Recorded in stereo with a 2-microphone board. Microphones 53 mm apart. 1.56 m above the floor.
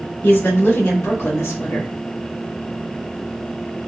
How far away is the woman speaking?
About 1.6 m.